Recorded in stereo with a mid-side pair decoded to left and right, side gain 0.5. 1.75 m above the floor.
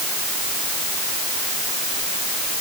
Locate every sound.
Only background noise.